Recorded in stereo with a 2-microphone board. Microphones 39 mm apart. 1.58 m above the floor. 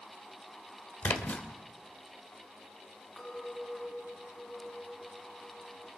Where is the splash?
45° left (ahead or behind), 3 m.